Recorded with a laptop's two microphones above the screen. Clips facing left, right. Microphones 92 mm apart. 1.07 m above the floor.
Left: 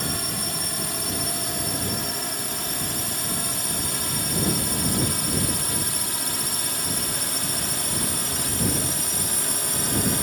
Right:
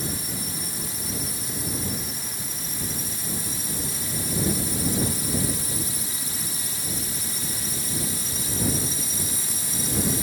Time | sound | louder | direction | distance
0.0 | a drone | left 2 dB | 65° left (ahead or behind) | ?